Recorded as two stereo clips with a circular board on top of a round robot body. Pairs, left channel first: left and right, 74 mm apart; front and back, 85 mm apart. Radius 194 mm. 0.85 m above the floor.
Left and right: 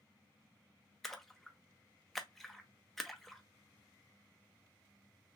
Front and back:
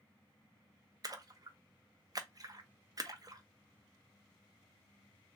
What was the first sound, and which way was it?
A splash, 175° left.